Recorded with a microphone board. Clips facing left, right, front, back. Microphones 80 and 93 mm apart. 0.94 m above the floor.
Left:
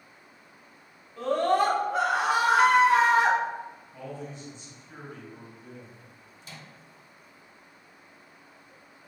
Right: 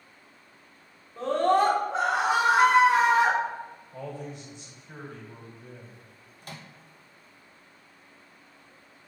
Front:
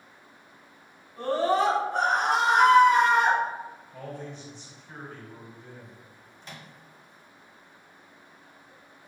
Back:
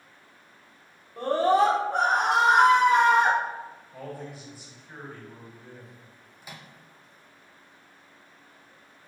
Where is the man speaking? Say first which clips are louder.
Right 2 dB, back 1 dB; 100° right, 2.5 m.